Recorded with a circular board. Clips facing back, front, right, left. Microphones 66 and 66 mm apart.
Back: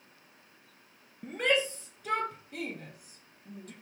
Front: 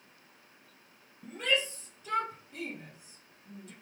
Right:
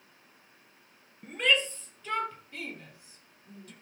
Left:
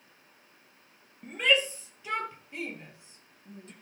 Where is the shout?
175° left, 3 m; by 3.7 s 150° left, 4.5 m.